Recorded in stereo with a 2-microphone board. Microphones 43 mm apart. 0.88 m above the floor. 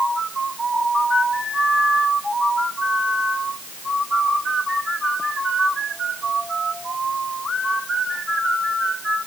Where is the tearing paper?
No tearing paper in this recording.